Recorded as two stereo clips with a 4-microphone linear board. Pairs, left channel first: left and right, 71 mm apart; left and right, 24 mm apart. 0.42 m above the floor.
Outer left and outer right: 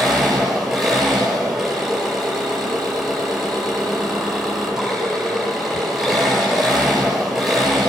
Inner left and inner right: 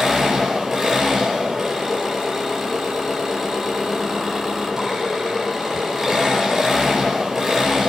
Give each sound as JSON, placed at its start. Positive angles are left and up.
{"t": 0.0, "sound": "an engine running", "side_deg": -5, "distance_m": 7.5}